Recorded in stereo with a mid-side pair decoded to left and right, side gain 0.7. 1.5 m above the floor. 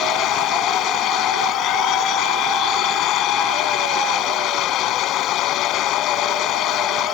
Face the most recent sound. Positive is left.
turn(degrees=50)